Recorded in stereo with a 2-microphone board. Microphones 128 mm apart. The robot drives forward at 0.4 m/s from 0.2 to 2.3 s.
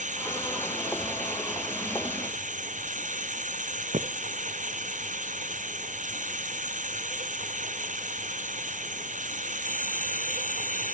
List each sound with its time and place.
0.0 s running water: 75° right (ahead or behind); by 10.9 s 85° right
3.9 s footsteps: 70° right (ahead or behind)